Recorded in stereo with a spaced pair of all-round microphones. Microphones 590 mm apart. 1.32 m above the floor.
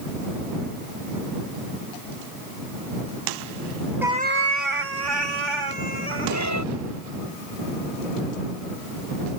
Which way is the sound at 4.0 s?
5° right (ahead or behind).